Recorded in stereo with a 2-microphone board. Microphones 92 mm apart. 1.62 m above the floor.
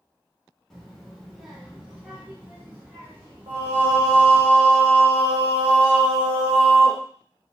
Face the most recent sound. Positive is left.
turn(degrees=-55)  # may be behind; listen again after turning